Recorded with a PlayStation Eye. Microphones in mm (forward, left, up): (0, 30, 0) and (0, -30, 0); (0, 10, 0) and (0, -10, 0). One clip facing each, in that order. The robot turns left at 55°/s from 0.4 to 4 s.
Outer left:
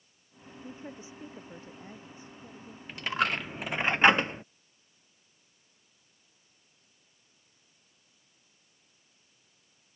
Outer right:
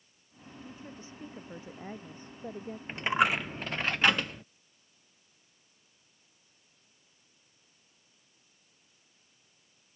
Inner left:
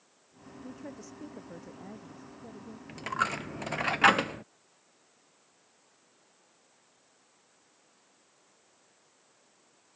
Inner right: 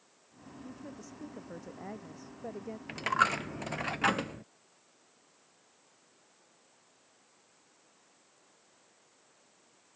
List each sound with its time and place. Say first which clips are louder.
0.6 s a woman speaking: outer left 4 dB, inner left 3 dB; 40° left; by 2.8 s 80° right
2.9 s a dropped coin: outer right 3 dB, inner right 3 dB; 150° right; by 4.4 s 150° left